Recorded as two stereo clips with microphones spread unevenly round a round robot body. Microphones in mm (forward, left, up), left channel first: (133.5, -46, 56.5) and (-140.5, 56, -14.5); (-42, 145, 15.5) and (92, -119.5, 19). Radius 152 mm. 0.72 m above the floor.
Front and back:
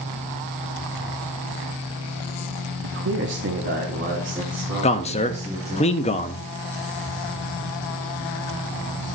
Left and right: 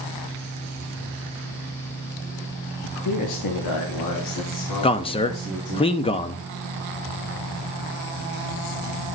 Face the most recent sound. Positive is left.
turn(degrees=55)